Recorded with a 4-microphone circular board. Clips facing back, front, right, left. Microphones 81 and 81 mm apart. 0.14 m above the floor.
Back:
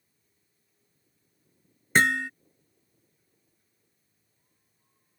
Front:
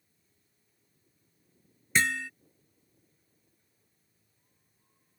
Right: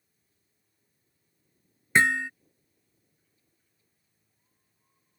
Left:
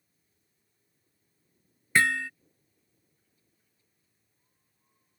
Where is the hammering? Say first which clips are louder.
Back 5 dB, right 2 dB; 155° right.